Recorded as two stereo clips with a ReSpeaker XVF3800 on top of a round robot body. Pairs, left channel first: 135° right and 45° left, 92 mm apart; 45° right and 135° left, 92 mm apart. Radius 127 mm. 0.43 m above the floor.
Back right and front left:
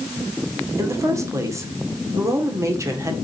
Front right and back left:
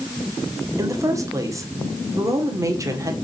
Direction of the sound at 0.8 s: 90° left.